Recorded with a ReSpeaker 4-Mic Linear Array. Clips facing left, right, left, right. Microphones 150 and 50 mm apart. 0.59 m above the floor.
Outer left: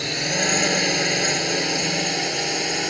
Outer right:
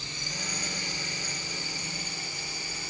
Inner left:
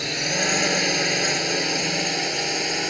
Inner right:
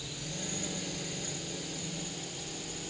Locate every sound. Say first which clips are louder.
0.0 s a drone: outer left 16 dB, inner left 16 dB; 75° left (ahead or behind)